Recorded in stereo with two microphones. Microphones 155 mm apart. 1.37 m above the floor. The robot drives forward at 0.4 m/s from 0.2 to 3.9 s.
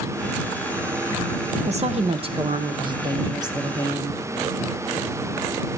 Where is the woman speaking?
45° right (ahead or behind), 0.8 m; by 4.2 s 20° right (ahead or behind), 1.5 m.